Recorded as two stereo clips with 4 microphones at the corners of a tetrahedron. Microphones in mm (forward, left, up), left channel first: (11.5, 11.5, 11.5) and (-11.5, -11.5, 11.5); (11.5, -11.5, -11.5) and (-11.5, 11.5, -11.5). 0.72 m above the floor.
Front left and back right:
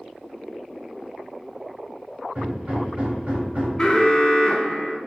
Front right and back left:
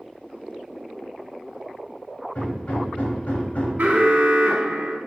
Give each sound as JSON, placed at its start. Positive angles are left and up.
{"t": 2.4, "sound": "hammering", "azimuth_deg": -90, "distance_m": 1.3}
{"t": 3.8, "sound": "an alarm", "azimuth_deg": 110, "distance_m": 0.6}